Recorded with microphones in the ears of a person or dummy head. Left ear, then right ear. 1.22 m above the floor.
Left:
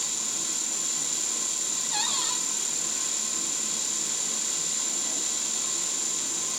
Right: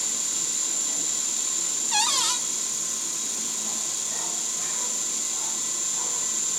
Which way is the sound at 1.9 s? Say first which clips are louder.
Right 6 dB; 65° right (ahead or behind).